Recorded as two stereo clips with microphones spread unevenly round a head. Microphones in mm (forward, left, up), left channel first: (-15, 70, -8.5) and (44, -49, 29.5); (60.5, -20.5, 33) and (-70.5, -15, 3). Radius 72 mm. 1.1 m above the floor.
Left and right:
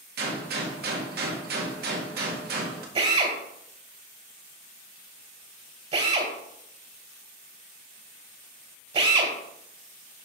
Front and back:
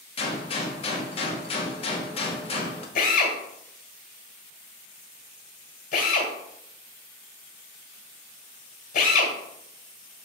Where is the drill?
25° right, 2.5 m.